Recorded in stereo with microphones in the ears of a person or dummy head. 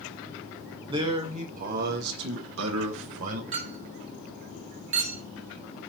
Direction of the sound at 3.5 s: 45° right (ahead or behind).